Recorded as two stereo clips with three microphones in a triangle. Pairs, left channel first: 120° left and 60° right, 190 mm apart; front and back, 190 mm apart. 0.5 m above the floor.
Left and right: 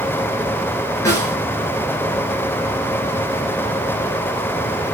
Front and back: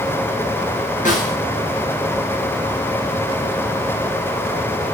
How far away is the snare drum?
About 4 m.